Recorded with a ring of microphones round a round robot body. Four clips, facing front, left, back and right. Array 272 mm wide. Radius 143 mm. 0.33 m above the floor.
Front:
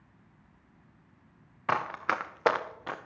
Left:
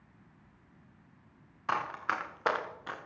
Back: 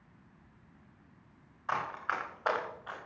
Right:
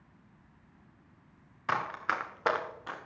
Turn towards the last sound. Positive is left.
turn(degrees=10)